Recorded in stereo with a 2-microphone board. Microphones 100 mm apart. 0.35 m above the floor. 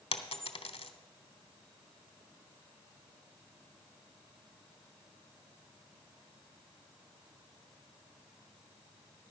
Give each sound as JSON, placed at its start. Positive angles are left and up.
{"t": 0.1, "sound": "a dropped coin", "side_deg": 80, "distance_m": 0.9}